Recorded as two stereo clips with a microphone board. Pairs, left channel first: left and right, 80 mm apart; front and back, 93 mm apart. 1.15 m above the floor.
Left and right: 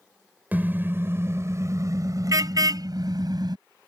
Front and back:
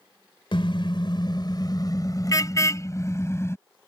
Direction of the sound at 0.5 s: 25° right.